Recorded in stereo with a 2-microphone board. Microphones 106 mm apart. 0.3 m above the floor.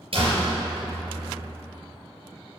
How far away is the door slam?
About 3.5 m.